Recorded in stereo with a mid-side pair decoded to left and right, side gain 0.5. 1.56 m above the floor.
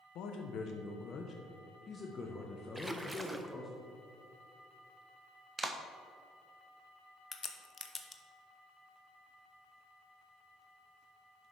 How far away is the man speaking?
About 1.4 m.